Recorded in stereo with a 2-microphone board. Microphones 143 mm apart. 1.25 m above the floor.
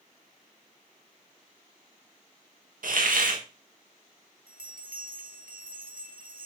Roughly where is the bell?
Right.